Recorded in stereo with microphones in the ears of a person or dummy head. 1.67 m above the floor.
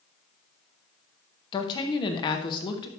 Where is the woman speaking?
25° left (ahead or behind), 0.8 m.